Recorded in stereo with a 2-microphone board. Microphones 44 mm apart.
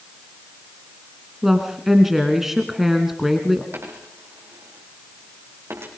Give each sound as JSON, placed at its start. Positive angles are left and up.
{"t": 1.4, "sound": "a woman speaking", "side_deg": -5, "distance_m": 1.9}
{"t": 3.7, "sound": "a dropped coin", "side_deg": -65, "distance_m": 4.0}